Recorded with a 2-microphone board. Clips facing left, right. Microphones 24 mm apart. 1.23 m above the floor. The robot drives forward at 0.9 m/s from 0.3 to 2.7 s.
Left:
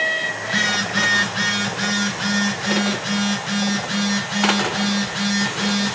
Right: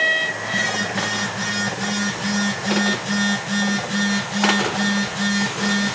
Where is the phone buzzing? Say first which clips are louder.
Left 2 dB; 75° left (ahead or behind), 1.6 m; by 6.0 s 45° left (ahead or behind), 2.5 m.